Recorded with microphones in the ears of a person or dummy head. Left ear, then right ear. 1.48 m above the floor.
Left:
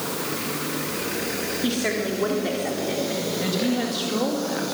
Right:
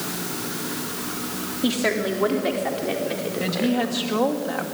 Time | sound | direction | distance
1.6 | a woman speaking | 30° right (ahead or behind) | 3 m
3.4 | a woman speaking | 35° right (ahead or behind) | 2.5 m